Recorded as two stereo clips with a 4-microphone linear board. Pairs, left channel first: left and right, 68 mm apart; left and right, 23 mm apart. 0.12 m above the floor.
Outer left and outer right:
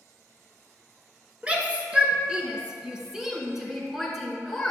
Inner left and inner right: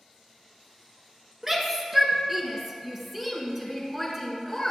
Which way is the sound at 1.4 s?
20° right (ahead or behind).